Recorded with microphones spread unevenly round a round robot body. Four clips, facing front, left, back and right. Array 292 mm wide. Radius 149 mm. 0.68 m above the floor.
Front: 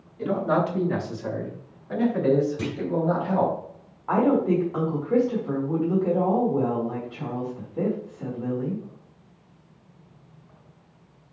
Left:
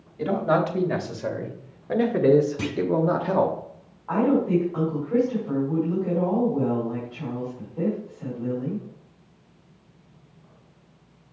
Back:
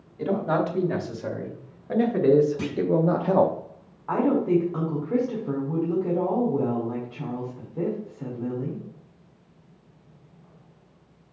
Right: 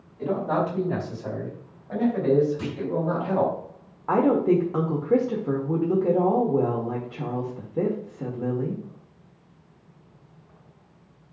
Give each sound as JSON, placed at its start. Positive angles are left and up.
{"t": 0.2, "sound": "a man speaking", "azimuth_deg": 95, "distance_m": 3.0}
{"t": 2.6, "sound": "a clunk", "azimuth_deg": 75, "distance_m": 3.5}
{"t": 4.1, "sound": "a woman speaking", "azimuth_deg": -90, "distance_m": 1.7}